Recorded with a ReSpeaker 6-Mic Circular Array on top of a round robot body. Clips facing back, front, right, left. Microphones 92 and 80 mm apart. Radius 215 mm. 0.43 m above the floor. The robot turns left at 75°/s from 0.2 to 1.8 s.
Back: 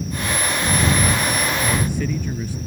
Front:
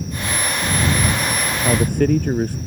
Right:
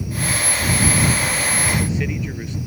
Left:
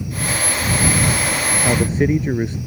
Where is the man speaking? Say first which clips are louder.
Front 6 dB, left 5 dB; 50° left; by 2.6 s 35° left.